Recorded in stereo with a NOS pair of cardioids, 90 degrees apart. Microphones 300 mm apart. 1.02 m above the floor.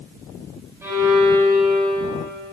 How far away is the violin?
About 2 m.